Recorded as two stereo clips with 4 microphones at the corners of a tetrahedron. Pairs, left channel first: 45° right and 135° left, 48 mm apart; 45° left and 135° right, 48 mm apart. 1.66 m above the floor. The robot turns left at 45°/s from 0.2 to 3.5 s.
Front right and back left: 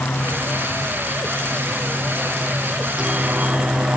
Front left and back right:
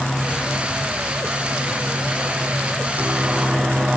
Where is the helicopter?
45° right; by 4.0 s 165° left.